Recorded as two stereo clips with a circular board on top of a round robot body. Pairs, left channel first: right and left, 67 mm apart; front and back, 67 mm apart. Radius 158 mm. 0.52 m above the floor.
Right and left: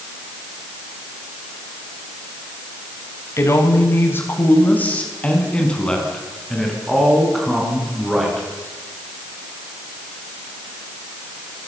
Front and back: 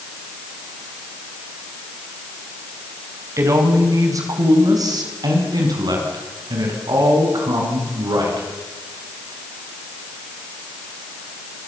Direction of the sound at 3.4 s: 135° right.